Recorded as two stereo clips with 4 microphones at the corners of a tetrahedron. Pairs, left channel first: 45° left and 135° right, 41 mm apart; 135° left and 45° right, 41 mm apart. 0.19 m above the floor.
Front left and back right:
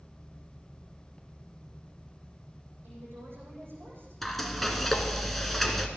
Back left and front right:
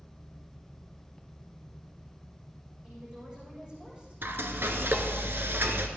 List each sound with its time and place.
2.8 s a woman speaking: 110° right, 8.5 m
4.2 s frying: 40° right, 1.3 m